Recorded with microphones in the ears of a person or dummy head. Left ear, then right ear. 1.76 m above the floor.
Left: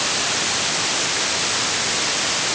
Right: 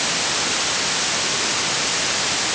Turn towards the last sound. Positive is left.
No sound to turn to.